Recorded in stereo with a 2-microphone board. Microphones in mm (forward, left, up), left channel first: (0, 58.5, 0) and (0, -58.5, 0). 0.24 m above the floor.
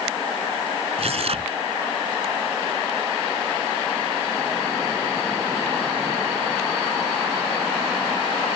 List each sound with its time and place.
1.0 s tearing paper: 65° right (ahead or behind)